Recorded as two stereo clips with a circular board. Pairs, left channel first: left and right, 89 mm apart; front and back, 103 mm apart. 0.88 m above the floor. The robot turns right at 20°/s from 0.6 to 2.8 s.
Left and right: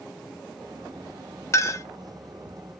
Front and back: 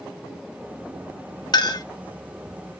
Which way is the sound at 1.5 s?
40° left.